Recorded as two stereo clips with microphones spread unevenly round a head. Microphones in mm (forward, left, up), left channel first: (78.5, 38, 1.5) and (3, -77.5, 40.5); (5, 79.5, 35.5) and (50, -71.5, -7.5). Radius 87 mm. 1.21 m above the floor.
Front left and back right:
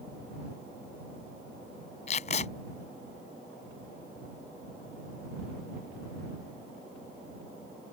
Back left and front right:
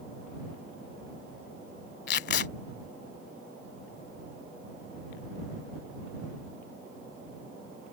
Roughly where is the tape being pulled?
Behind left.